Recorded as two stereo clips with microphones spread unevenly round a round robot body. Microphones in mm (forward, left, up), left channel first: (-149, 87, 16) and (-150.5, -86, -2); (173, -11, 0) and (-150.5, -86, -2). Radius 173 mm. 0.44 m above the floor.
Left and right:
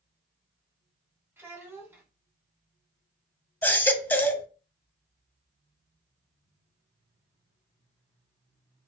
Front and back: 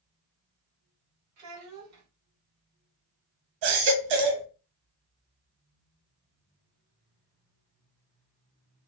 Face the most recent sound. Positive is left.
turn(degrees=170)